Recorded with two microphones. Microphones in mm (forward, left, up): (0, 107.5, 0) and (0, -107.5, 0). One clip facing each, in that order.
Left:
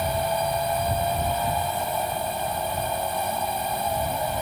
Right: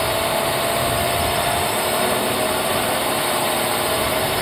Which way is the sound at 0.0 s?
85° right.